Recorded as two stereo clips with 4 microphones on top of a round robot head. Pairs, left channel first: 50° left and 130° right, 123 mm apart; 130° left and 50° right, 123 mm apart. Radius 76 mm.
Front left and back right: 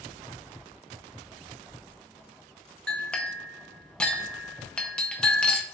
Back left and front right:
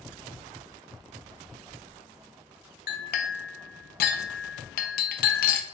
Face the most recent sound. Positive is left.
turn(degrees=130)